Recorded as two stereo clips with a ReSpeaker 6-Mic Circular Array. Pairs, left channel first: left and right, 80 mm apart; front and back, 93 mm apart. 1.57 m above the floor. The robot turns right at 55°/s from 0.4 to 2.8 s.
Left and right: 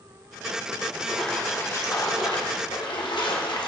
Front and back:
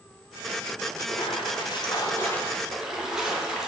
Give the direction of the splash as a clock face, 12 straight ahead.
12 o'clock.